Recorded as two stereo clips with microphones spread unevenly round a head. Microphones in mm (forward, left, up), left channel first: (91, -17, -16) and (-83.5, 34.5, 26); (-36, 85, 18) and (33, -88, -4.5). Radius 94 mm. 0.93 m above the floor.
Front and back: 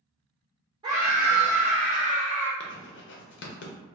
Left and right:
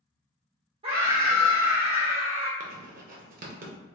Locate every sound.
0.8 s a scream: 125° right, 0.6 m; by 2.5 s 90° right, 1.3 m
2.6 s writing: 25° right, 0.5 m